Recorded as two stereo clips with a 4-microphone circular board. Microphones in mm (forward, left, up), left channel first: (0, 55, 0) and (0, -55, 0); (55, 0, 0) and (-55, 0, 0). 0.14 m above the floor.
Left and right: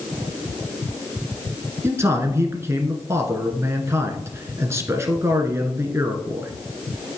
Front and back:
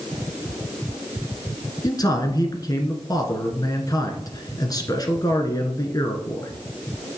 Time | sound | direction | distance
1.8 | a man speaking | 35° right | 1.4 m